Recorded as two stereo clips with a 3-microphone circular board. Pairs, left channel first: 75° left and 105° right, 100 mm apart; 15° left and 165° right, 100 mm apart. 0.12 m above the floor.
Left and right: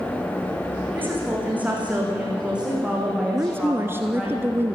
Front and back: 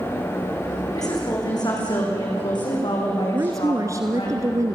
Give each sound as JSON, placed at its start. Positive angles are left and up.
{"t": 0.9, "sound": "a woman speaking", "azimuth_deg": -35, "distance_m": 7.5}
{"t": 3.3, "sound": "a woman speaking", "azimuth_deg": -150, "distance_m": 1.3}